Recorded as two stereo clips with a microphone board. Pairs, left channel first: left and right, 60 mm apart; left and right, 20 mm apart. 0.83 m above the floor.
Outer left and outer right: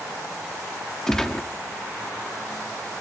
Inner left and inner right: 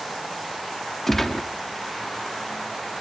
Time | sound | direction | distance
1.1 | a gunshot | 10° left (ahead or behind) | 0.9 m